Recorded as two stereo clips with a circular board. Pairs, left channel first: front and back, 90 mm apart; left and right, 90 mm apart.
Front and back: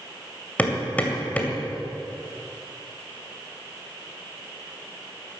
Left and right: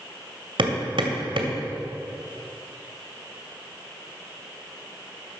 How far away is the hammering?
About 2.5 m.